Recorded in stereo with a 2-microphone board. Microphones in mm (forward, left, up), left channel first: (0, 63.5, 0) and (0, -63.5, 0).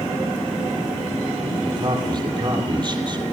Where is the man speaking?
40° right (ahead or behind), 7 m.